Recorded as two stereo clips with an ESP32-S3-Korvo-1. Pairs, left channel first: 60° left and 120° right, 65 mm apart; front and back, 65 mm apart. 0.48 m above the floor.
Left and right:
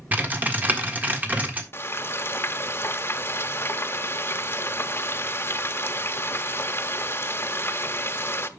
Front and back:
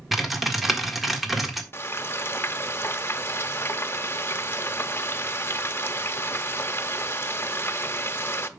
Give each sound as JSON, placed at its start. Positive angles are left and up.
{"t": 0.1, "sound": "typing on a keyboard", "azimuth_deg": -95, "distance_m": 1.5}
{"t": 1.7, "sound": "frying", "azimuth_deg": 30, "distance_m": 0.8}